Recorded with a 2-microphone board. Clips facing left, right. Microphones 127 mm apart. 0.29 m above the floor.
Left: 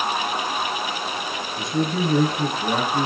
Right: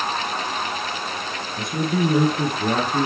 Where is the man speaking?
65° right (ahead or behind), 6 m.